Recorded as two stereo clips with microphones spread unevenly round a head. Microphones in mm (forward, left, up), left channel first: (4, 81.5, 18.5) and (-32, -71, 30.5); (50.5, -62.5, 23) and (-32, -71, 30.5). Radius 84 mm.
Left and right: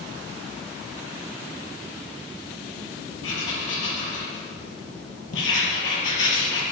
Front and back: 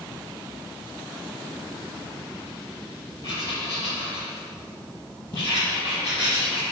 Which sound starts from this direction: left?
Writing, at 3.2 s.